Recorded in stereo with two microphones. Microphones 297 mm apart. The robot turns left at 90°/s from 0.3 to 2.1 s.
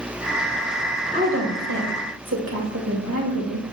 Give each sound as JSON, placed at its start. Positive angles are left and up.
{"t": 1.1, "sound": "a woman speaking", "azimuth_deg": -30, "distance_m": 1.8}